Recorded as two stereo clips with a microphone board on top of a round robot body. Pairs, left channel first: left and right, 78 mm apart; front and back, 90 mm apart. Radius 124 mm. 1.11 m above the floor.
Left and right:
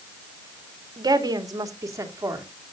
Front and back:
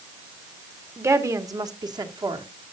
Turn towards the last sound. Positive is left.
turn(degrees=-145)